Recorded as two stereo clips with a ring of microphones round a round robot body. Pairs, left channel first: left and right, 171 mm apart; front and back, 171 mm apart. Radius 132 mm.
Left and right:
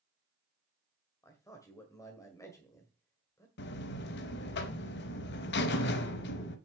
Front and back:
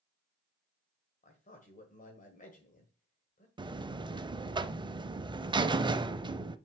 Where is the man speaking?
25° left, 1.8 m.